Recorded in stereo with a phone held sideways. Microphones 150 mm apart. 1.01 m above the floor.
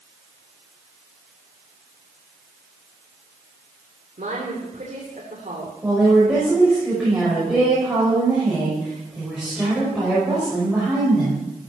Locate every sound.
4.2 s a woman speaking: 65° right (ahead or behind), 3 m
5.8 s a woman speaking: 5° right (ahead or behind), 6 m